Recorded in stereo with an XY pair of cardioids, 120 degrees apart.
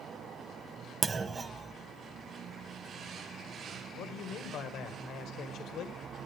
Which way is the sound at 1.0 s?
30° right.